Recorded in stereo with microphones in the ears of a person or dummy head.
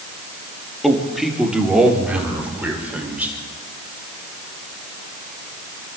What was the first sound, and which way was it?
A man speaking, 5° right (ahead or behind).